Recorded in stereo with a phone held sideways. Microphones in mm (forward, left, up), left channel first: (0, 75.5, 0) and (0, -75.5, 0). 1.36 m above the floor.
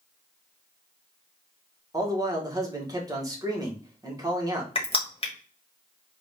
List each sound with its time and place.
1.9 s a man speaking: 25° right (ahead or behind), 1.2 m
4.8 s crushing: 35° left (ahead or behind), 1.2 m